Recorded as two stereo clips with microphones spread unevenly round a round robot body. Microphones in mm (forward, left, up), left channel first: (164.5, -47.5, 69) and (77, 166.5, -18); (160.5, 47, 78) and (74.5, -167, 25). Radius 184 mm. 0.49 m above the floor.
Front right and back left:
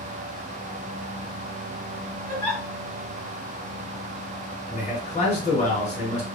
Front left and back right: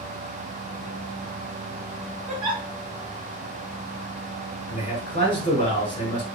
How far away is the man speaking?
About 2 m.